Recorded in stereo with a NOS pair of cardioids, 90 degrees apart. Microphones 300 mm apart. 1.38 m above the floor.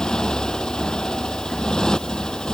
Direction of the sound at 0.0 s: Straight ahead.